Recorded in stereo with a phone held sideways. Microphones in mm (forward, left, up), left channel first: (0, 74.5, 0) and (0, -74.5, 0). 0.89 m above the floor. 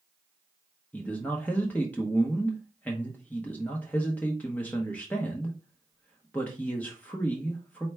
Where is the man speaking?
10° left (ahead or behind), 0.8 m.